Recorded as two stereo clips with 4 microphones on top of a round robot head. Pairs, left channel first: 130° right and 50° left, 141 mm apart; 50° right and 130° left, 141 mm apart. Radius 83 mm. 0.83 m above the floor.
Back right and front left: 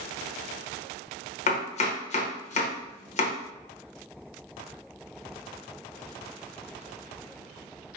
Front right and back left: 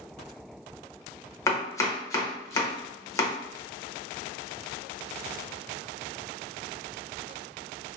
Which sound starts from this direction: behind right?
Chopping, at 1.5 s.